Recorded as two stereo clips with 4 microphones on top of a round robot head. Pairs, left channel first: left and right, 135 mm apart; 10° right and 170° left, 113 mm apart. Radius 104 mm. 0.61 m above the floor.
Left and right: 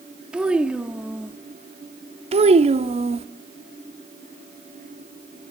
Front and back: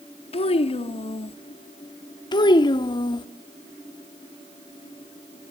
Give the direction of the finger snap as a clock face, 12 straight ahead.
No finger snap in this recording.